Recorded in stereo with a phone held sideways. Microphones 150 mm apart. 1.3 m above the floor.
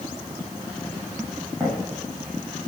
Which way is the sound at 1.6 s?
25° right (ahead or behind).